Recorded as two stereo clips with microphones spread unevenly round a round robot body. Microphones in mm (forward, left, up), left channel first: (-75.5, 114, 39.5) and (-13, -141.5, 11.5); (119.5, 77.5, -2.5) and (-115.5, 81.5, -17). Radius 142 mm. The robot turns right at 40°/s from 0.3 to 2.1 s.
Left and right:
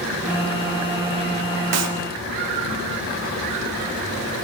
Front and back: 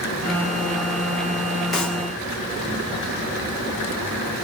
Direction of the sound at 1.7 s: 90° right.